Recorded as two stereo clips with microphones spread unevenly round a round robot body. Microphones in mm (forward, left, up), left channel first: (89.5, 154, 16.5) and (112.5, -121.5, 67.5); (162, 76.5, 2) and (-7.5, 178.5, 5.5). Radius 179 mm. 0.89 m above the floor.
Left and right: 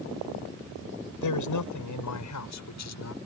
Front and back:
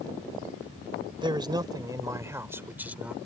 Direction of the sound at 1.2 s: 80° left.